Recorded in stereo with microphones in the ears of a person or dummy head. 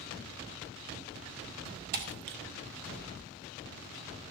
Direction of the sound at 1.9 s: 40° right (ahead or behind).